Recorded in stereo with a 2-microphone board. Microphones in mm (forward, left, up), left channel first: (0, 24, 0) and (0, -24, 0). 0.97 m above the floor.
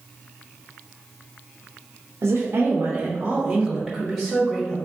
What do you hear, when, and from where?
2.2 s a woman speaking: 70° right (ahead or behind), 0.6 m; by 4.8 s 15° left (ahead or behind), 1.3 m